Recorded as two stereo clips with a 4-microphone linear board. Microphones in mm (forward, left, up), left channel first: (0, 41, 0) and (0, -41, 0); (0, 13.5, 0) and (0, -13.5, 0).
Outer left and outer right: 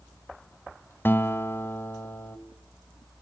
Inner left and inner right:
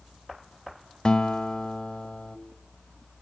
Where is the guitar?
25° left (ahead or behind), 1.2 m.